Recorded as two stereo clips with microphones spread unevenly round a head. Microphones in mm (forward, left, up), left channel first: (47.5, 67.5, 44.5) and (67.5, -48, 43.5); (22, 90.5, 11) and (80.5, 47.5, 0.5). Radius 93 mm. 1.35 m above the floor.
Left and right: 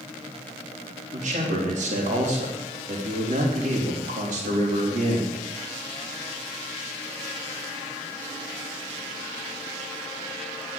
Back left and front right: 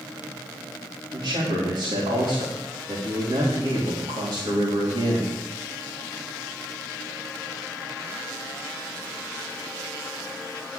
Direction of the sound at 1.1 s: 70° right.